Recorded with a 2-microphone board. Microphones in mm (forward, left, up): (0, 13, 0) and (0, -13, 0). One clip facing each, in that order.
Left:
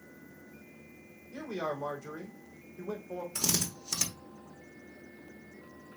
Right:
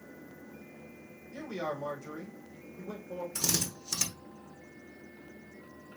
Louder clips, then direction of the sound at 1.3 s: Left 1 dB; 15° left (ahead or behind).